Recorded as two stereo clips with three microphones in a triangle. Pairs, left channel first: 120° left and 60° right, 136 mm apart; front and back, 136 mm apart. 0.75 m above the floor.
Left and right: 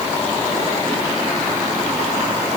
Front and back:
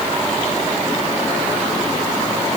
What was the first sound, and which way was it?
Only background noise.